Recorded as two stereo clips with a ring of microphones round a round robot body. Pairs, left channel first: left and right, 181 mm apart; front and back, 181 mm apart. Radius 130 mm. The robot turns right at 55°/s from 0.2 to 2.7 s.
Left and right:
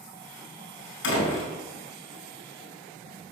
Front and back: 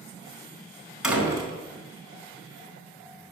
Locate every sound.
1.0 s a door slam: 95° left, 4.5 m; by 1.5 s 120° left, 4.5 m